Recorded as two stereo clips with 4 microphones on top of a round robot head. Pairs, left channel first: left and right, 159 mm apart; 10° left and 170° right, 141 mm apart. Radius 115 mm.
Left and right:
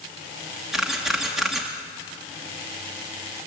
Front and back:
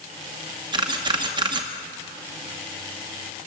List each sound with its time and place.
0.7 s a camera shutter: 175° right, 0.9 m